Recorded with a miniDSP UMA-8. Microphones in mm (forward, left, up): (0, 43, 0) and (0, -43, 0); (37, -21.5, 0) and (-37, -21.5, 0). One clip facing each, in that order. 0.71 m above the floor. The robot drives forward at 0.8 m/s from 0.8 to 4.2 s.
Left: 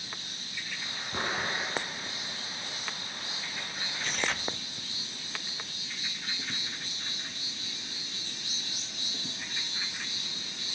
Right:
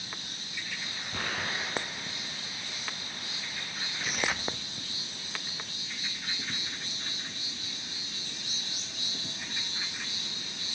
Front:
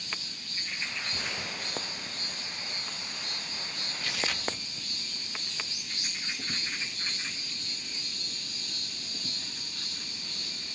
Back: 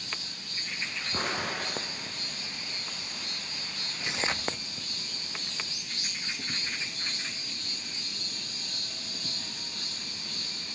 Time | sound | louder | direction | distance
1.1 | an explosion | left 2 dB, back 5 dB | 155° left | 1.0 m
4.0 | tearing paper | right 1 dB, back 2 dB | 155° right | 0.9 m